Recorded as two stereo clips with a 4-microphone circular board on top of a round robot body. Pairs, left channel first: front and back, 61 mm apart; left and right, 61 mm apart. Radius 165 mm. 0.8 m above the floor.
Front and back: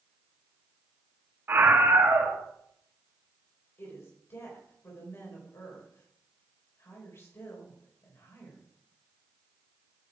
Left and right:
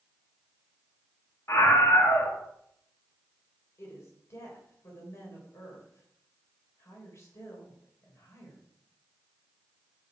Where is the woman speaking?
50° left, 4 m.